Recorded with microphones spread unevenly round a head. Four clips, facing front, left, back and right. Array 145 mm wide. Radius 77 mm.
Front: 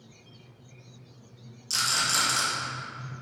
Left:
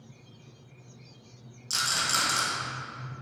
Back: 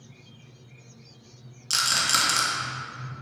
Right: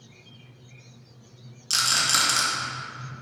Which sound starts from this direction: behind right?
A rattle, at 1.7 s.